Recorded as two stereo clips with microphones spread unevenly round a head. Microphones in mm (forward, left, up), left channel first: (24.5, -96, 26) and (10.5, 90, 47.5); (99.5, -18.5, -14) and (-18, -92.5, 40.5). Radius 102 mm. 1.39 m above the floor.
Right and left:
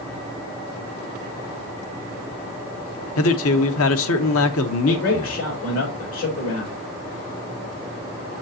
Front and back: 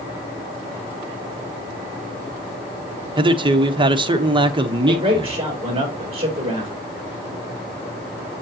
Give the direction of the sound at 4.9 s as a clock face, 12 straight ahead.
3 o'clock.